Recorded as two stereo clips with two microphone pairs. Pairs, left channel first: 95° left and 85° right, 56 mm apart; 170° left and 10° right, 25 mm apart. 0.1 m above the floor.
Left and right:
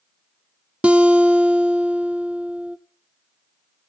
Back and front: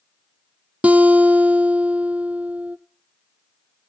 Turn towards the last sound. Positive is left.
turn(degrees=-15)